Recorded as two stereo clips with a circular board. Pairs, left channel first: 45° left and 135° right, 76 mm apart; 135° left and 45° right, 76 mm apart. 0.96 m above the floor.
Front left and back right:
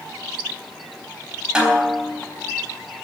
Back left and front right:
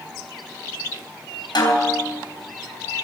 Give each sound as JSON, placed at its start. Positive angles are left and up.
{"t": 1.6, "sound": "a snare drum", "azimuth_deg": 145, "distance_m": 4.0}